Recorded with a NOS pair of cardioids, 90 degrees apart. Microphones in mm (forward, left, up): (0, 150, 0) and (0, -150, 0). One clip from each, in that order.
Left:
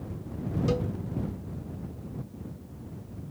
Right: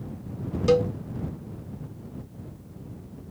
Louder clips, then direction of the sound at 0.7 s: Right 11 dB; 40° right.